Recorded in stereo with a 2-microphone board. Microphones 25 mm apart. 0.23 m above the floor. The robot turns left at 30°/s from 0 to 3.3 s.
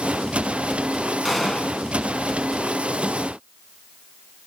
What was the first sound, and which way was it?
A gunshot, 10° left (ahead or behind).